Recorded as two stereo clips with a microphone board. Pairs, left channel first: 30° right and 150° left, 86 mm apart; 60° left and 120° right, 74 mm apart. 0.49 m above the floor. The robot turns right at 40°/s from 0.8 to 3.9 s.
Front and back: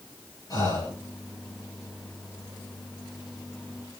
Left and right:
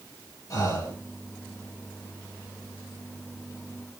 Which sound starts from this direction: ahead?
Breathing, at 0.5 s.